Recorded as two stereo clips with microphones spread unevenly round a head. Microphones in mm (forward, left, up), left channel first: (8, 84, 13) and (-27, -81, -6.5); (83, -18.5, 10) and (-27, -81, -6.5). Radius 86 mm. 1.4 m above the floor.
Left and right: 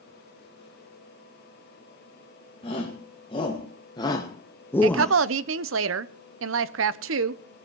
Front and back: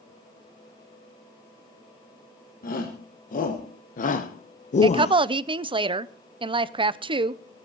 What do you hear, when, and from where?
2.6 s a shout: 15° left, 2 m; by 5.1 s 15° right, 0.7 m
4.8 s a woman speaking: 100° right, 0.8 m